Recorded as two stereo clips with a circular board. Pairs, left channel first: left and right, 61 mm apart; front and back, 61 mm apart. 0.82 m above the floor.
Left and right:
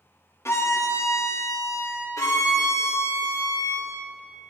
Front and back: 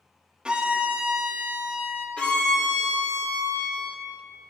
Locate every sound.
0.5 s a violin: 110° left, 0.7 m
2.2 s a violin: 70° left, 1.7 m